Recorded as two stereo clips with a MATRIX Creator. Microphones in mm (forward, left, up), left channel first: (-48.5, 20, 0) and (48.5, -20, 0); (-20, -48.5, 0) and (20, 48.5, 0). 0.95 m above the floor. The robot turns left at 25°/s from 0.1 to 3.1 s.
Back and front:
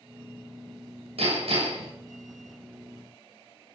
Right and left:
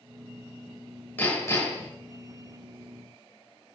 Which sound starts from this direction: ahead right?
Hammering, at 1.2 s.